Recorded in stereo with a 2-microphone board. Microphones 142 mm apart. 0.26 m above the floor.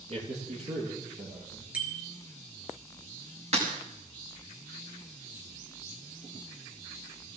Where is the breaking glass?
50° right (ahead or behind), 6.5 m.